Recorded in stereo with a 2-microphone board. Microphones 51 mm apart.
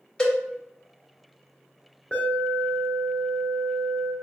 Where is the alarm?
20° left (ahead or behind), 1.5 m.